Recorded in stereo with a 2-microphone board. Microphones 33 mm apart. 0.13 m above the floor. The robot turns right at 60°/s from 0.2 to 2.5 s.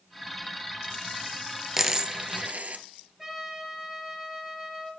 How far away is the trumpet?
About 1.9 m.